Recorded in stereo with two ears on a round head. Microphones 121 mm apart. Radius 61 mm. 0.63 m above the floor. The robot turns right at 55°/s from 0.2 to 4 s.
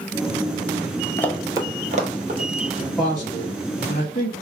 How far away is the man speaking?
About 1.1 m.